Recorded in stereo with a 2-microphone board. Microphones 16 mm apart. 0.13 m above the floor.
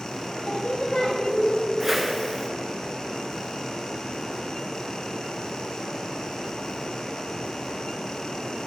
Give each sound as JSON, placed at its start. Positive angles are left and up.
{"t": 0.3, "sound": "singing", "side_deg": 65, "distance_m": 1.7}
{"t": 1.8, "sound": "a whoosh", "side_deg": -20, "distance_m": 1.0}